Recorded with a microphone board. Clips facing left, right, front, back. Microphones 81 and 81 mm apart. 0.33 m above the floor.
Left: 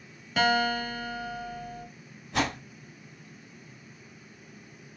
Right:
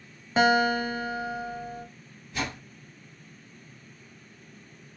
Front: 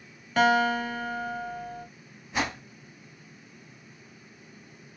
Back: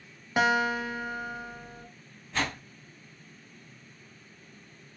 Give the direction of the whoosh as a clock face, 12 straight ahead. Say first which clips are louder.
Left 5 dB, front 2 dB; 9 o'clock.